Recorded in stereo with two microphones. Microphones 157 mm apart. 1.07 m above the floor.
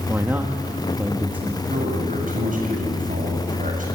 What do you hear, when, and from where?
0.1 s a man speaking: 10° right (ahead or behind), 1.5 m
1.7 s a man speaking: 60° right (ahead or behind), 8 m